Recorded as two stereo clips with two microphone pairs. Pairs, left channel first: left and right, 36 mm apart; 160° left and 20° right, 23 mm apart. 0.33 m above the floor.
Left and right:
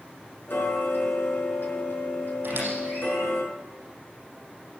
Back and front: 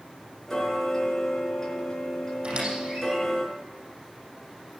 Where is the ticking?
85° left, 4.5 m.